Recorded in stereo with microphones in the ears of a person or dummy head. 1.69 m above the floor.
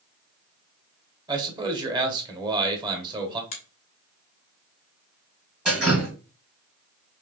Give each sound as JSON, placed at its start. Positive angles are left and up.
{"t": 1.3, "sound": "a man speaking", "side_deg": -25, "distance_m": 1.5}
{"t": 3.5, "sound": "a finger snap", "side_deg": 40, "distance_m": 0.9}
{"t": 5.7, "sound": "dripping", "side_deg": -5, "distance_m": 1.5}